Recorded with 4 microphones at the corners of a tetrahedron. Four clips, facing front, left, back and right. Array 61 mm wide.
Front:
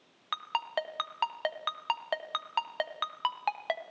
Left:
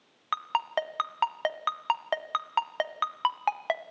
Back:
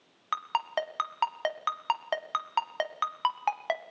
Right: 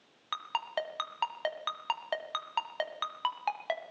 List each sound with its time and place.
0.3 s a ringtone: 125° left, 0.9 m